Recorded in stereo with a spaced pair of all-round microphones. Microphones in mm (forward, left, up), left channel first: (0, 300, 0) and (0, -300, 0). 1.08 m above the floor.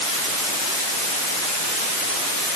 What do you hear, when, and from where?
Only background noise.